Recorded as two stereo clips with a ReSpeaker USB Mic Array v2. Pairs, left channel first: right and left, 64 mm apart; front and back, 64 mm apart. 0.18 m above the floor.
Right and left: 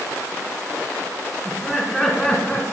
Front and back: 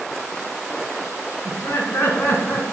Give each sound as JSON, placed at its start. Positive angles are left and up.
{"t": 1.4, "sound": "laughter", "azimuth_deg": 10, "distance_m": 2.5}